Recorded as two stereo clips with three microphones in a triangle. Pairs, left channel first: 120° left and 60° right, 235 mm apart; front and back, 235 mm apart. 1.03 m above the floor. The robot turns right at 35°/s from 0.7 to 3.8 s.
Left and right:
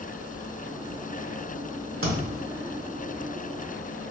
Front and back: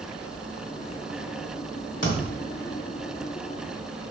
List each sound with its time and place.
2.0 s a thud: 35° right, 1.4 m; by 2.5 s 20° right, 1.4 m